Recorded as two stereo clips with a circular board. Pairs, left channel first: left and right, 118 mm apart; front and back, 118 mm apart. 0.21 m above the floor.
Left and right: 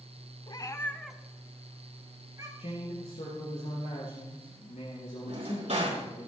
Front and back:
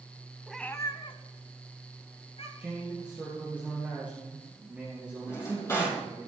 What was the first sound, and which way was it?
A cat meowing, 95° left.